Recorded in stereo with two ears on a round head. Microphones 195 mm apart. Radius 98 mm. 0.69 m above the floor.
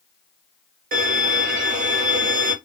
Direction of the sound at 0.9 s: 40° right (ahead or behind).